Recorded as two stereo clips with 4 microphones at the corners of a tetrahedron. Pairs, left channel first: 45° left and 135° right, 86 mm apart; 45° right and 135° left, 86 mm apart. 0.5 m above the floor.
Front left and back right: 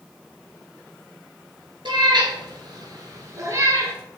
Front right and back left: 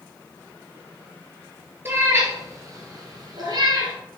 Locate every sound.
1.9 s a cat meowing: 160° right, 2 m; by 3.9 s 165° left, 2.5 m